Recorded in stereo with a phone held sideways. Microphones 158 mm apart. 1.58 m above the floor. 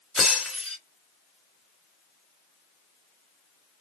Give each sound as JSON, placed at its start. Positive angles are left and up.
{"t": 0.1, "sound": "breaking glass", "side_deg": 5, "distance_m": 1.9}